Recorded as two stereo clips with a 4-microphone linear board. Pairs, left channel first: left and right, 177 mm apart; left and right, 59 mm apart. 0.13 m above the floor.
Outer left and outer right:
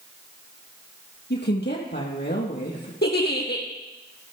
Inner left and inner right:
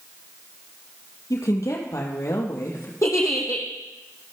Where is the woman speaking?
70° left (ahead or behind), 3 m; by 2.9 s 65° left (ahead or behind), 3.5 m.